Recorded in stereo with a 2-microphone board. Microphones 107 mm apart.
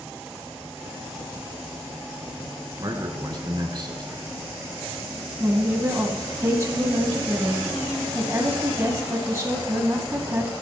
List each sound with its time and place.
2.8 s a man speaking: 40° right (ahead or behind), 1.8 m
5.4 s a woman speaking: 30° right (ahead or behind), 1.5 m